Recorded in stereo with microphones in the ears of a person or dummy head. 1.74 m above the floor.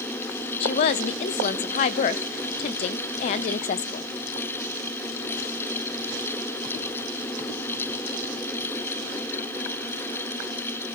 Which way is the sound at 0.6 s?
30° left (ahead or behind).